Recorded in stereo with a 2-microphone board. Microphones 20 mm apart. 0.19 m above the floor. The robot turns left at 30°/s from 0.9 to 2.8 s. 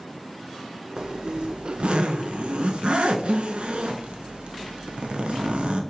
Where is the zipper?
50° right, 0.6 m; by 5.8 s 105° right, 0.6 m.